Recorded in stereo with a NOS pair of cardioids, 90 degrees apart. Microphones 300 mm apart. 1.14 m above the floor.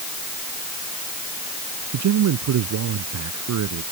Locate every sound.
1.9 s a man speaking: 70° right